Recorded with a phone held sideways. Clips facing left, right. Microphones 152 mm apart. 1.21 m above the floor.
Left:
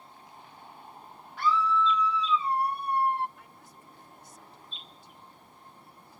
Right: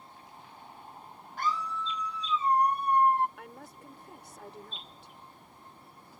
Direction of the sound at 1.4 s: 45° right (ahead or behind).